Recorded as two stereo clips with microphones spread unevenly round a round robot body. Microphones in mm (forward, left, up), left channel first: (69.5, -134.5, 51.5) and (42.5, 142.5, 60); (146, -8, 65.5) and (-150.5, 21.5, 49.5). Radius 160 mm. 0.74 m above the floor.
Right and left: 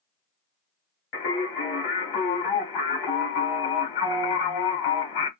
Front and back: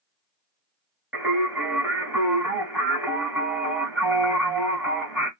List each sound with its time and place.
1.1 s singing: 100° right, 1.9 m